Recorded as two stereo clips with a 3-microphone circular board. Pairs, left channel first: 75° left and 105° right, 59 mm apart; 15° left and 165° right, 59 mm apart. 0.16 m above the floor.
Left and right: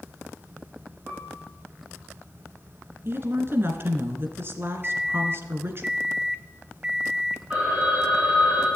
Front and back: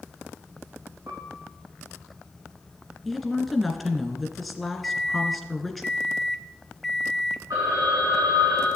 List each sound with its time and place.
1.1 s a piano: 160° left, 9.5 m
3.0 s a woman speaking: 75° right, 2 m
4.8 s a microwave: 55° right, 0.8 m
7.5 s a phone ringing: straight behind, 7 m